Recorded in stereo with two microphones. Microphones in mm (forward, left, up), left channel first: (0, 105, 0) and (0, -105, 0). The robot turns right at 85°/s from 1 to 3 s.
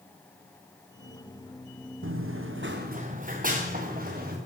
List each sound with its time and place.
2.0 s running footsteps: 70° right (ahead or behind), 1.2 m; by 4.4 s 45° right (ahead or behind), 3 m